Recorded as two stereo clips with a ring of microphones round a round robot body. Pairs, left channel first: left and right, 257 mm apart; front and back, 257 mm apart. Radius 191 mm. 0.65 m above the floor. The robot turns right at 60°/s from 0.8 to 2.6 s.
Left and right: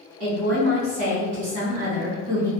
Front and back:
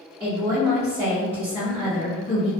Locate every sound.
0.2 s a woman speaking: 110° right, 1.6 m; by 2.5 s 10° right, 1.6 m